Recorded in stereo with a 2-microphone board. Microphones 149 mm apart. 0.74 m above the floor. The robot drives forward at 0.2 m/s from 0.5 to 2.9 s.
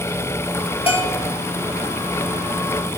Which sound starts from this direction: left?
A bell, at 0.9 s.